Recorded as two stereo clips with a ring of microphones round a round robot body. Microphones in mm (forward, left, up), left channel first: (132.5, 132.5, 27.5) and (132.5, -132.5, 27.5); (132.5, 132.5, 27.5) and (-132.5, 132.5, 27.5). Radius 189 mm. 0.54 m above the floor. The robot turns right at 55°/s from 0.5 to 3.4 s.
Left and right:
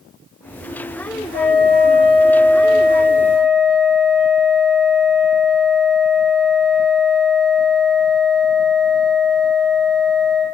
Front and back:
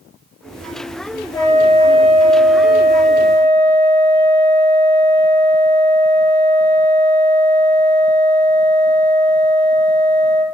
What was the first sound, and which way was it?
A flute, 70° left.